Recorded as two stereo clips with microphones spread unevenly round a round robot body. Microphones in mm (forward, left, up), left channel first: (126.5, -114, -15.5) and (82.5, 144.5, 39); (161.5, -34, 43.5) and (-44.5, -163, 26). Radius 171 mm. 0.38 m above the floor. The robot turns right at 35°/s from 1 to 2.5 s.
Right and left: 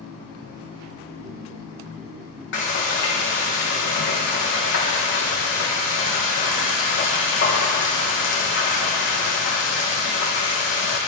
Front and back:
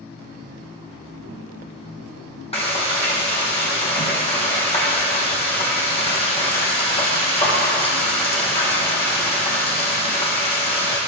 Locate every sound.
2.5 s frying: 35° right, 4.5 m